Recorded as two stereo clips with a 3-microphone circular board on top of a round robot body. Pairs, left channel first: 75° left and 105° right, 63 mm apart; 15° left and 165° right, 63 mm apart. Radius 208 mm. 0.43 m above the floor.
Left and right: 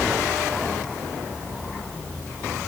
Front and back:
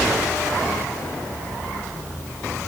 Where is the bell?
I don't hear a bell.